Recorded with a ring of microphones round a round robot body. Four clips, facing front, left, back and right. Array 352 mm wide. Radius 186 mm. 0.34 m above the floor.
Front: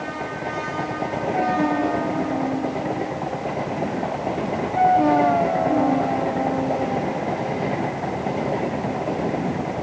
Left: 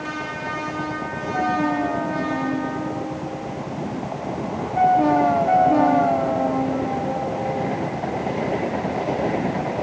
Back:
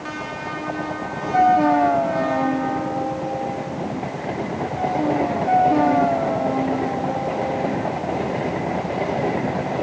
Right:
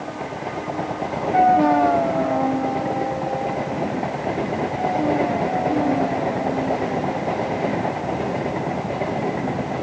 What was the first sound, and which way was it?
Only background noise.